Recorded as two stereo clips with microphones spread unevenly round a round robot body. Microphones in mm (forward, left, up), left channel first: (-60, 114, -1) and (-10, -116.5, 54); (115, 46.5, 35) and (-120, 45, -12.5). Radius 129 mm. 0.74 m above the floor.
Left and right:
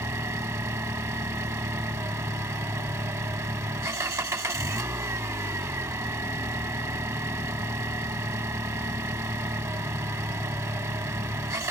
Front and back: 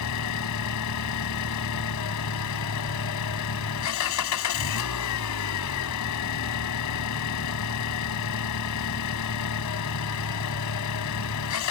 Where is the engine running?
Straight ahead.